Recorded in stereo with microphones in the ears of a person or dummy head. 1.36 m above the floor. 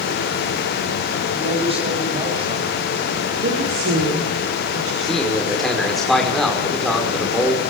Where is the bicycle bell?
No bicycle bell in this recording.